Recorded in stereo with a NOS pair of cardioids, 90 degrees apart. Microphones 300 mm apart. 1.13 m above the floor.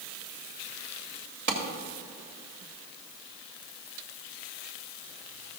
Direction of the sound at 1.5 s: 40° right.